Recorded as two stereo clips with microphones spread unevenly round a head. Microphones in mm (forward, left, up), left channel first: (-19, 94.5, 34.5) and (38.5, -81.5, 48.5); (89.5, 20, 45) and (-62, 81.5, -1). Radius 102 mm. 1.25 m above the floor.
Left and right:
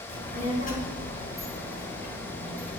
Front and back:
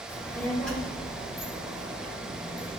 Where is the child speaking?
55° left, 2 m; by 2.8 s 75° left, 4 m.